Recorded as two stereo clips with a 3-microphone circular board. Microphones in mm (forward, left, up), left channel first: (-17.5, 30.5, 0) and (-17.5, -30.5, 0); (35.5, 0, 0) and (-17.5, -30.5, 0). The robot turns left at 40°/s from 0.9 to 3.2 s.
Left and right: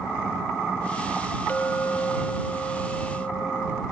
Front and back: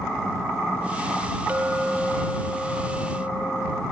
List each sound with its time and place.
1.5 s a clink: 150° left; by 3.8 s 80° left